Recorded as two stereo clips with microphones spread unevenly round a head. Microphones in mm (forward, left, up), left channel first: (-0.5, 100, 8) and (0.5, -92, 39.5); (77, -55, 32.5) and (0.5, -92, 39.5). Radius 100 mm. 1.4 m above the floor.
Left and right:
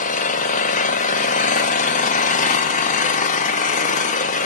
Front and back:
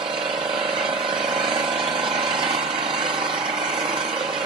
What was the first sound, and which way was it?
An engine running, 145° left.